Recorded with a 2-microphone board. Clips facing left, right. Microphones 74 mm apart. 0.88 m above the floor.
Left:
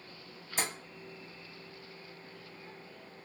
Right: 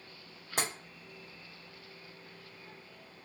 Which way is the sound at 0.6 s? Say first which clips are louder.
Right 1 dB; 65° right (ahead or behind).